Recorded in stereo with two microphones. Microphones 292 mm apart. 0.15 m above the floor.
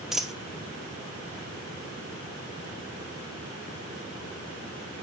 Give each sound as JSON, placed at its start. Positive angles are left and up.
{"t": 0.1, "sound": "a dropped coin", "side_deg": 0, "distance_m": 1.0}